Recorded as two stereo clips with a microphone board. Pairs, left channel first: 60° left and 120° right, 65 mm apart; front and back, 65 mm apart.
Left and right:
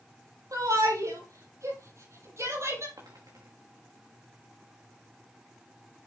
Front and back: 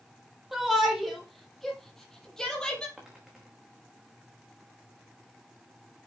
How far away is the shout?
About 5.5 m.